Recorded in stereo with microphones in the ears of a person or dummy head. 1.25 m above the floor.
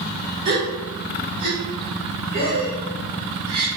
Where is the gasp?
25° right (ahead or behind), 1.7 m.